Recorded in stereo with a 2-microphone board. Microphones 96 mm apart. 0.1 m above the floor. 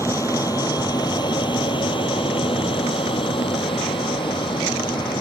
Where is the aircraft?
35° left (ahead or behind); by 5.2 s 55° left (ahead or behind).